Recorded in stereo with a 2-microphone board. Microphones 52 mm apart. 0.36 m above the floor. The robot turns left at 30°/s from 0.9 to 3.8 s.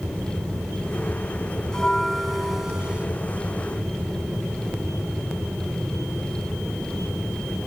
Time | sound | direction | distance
1.7 | a bell | 15° left | 0.7 m